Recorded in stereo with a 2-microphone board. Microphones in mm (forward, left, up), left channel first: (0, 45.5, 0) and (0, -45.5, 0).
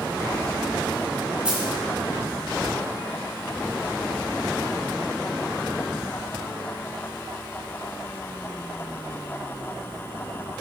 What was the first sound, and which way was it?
A dropped coin, 10° right (ahead or behind).